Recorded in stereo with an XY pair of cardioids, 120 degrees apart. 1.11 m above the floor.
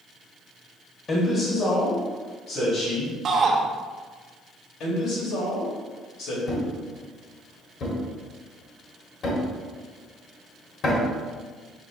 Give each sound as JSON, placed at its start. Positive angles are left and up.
{"t": 1.1, "sound": "a man speaking", "azimuth_deg": 35, "distance_m": 1.0}
{"t": 3.2, "sound": "a shout", "azimuth_deg": -45, "distance_m": 0.9}
{"t": 4.8, "sound": "a man speaking", "azimuth_deg": 70, "distance_m": 2.0}
{"t": 6.5, "sound": "a thud", "azimuth_deg": 55, "distance_m": 1.4}